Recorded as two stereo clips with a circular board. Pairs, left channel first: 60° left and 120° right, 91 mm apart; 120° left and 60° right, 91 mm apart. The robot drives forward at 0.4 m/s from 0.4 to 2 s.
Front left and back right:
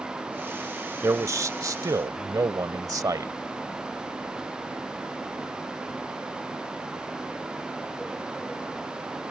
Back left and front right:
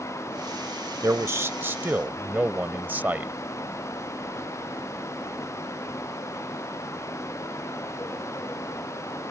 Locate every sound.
1.0 s a man speaking: 90° right; by 3.3 s 120° right